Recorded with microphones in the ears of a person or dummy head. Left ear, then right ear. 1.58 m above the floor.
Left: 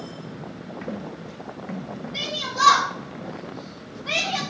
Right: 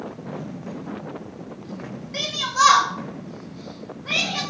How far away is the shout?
About 1.6 m.